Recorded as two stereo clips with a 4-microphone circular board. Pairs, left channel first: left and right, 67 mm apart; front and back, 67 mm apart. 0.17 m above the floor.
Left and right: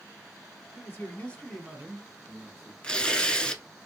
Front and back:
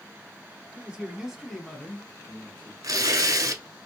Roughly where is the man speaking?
Behind left.